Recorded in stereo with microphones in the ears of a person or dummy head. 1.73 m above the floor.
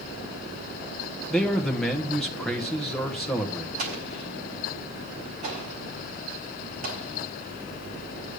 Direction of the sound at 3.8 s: 45° right (ahead or behind).